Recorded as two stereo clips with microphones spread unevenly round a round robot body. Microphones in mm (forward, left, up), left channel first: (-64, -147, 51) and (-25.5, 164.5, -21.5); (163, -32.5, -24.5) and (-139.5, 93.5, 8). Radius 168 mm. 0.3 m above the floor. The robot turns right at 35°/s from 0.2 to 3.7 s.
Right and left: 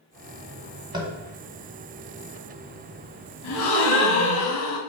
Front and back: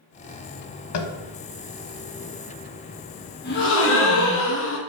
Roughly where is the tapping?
Ahead.